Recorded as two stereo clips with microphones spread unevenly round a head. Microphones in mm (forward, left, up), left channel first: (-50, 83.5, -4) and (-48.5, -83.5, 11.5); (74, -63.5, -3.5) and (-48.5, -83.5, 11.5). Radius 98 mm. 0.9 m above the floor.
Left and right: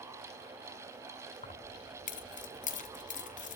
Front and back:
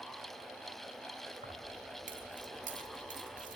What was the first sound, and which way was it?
Keys jangling, 135° left.